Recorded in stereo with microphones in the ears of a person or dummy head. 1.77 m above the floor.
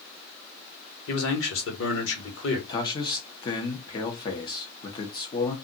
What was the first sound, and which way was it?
A man speaking, 85° left.